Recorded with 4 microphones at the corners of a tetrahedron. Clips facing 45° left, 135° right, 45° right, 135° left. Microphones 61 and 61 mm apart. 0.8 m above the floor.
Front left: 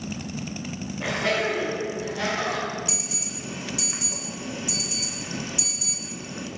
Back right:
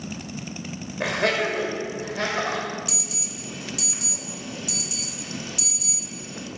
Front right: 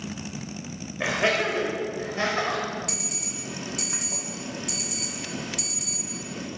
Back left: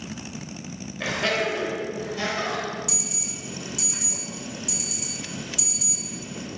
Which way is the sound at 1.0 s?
115° right.